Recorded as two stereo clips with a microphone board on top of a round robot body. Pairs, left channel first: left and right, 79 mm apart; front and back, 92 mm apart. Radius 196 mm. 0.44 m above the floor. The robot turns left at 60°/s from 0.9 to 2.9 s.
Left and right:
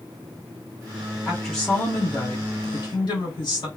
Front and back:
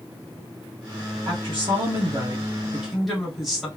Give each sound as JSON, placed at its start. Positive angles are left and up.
{"t": 1.2, "sound": "a woman speaking", "azimuth_deg": -170, "distance_m": 2.5}